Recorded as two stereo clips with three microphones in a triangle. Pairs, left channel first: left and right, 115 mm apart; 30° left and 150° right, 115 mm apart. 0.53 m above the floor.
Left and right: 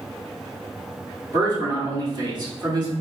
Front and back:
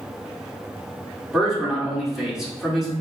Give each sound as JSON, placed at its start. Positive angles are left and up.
{"t": 1.3, "sound": "a man speaking", "azimuth_deg": -65, "distance_m": 1.4}